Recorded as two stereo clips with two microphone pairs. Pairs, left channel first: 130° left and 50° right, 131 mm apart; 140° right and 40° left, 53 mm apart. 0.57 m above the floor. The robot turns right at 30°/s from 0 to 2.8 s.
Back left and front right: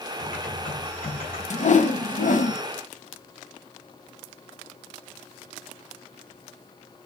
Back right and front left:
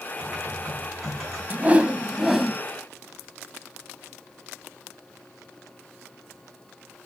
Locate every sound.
0.2 s typing on a keyboard: 100° left, 6 m; by 1.4 s 135° left, 6 m
1.5 s a whoosh: 100° left, 0.7 m; by 2.6 s 135° left, 0.7 m